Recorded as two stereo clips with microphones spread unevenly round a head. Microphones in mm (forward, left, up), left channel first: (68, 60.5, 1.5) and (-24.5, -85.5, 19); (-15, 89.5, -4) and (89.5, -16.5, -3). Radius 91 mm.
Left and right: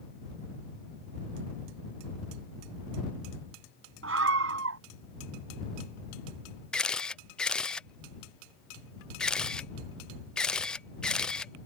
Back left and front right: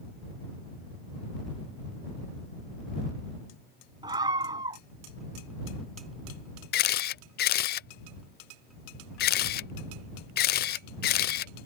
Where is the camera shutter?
140° left.